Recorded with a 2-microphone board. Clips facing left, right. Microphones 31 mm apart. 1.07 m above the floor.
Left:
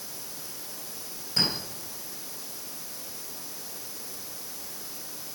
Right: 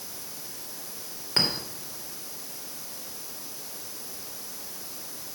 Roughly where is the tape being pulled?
I don't hear tape being pulled.